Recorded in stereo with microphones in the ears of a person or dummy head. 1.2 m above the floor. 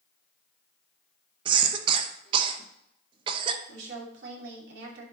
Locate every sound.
1.4 s a cough: 35° right (ahead or behind), 1.1 m
3.7 s a woman speaking: 70° right (ahead or behind), 3 m